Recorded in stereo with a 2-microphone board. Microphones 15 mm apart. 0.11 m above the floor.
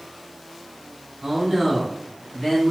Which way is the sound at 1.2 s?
30° right (ahead or behind).